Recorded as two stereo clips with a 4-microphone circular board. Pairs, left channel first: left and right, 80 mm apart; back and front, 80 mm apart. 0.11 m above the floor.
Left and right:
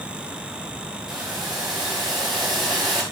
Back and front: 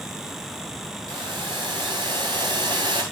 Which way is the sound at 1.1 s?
5° right.